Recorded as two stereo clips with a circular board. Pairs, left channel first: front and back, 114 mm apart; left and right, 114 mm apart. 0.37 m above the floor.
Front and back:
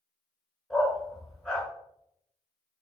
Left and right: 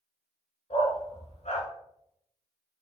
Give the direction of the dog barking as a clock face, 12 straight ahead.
9 o'clock.